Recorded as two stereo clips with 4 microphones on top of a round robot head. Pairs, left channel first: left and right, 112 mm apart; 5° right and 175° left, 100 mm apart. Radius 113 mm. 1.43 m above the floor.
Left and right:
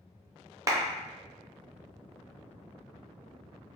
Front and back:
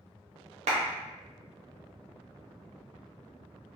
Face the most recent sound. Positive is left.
turn(degrees=-150)